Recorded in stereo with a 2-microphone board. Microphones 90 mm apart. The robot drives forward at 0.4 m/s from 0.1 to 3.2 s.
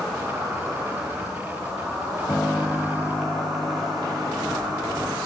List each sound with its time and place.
0.0 s an insect: 5° right (ahead or behind), 9 m
2.3 s a piano: 20° left (ahead or behind), 0.9 m; by 5.2 s 25° left (ahead or behind), 0.6 m